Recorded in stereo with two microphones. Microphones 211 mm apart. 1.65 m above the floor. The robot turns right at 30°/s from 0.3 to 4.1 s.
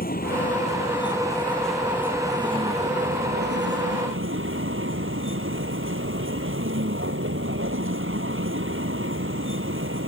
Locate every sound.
0.0 s a vehicle: 135° left; by 10.1 s 110° right